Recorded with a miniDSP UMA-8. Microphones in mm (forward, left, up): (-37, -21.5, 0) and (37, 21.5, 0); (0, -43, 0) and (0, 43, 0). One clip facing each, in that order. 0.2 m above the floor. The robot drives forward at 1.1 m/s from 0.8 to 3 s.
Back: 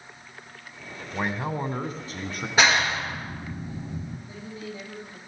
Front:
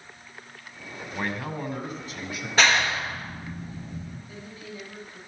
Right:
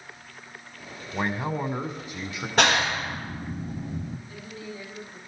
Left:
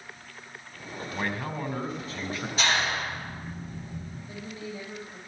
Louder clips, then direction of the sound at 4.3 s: Back 3 dB, left 1 dB; 145° left.